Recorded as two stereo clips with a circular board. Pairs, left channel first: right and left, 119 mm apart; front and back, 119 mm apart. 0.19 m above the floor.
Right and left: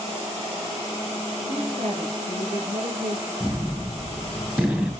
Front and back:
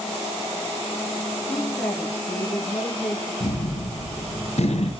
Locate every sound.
1.5 s a woman speaking: 80° left, 3.5 m
3.4 s a gunshot: 15° left, 3 m